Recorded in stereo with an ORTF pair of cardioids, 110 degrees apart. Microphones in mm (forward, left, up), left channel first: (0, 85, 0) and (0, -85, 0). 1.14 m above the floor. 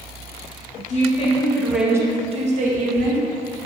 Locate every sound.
0.9 s a woman speaking: 50° left, 0.9 m; by 3.3 s 65° right, 1.3 m